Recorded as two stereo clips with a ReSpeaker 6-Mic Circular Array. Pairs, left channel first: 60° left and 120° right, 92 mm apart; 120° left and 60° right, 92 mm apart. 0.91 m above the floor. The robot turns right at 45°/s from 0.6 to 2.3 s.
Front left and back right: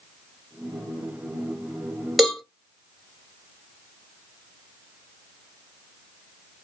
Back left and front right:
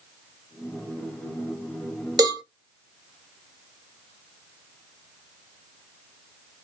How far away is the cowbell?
About 1.5 m.